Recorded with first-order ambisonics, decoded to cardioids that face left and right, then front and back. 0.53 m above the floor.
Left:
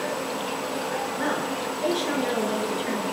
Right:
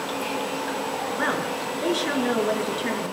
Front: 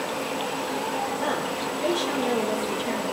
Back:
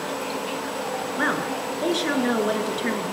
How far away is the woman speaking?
About 7 m.